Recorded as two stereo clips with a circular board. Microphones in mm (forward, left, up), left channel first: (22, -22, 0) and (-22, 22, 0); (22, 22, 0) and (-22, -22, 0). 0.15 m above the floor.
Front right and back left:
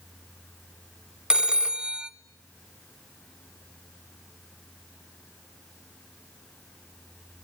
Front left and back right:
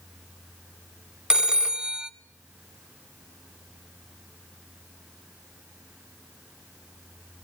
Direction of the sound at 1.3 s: 175° left.